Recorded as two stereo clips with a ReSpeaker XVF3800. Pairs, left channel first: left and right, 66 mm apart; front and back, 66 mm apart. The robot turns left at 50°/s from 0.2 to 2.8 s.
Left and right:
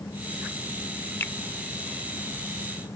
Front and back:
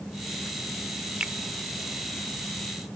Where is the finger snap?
120° left; by 1.3 s 110° left.